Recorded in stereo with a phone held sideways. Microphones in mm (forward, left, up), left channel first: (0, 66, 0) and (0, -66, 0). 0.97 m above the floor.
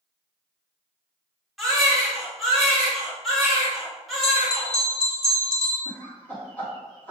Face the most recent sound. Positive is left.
turn(degrees=15)  # may be behind; listen again after turning